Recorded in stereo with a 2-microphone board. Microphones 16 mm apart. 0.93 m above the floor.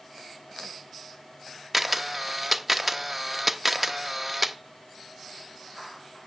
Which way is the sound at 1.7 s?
5° right (ahead or behind).